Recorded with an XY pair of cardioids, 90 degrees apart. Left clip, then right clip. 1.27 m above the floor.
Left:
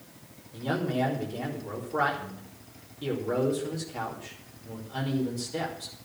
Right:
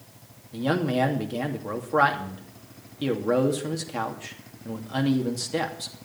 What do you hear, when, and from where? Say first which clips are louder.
0.5 s a man speaking: right 5 dB; 70° right, 2.5 m